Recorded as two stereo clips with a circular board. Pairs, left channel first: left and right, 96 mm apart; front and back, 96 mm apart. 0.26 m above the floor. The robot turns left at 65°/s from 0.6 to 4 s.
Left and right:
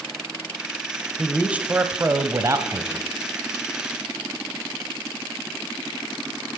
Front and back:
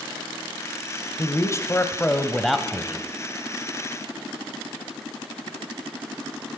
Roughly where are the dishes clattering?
No dishes clattering in this recording.